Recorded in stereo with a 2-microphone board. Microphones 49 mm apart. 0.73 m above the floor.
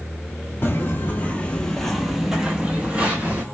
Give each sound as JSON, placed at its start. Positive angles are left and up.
{"t": 0.6, "sound": "footsteps", "side_deg": 45, "distance_m": 1.0}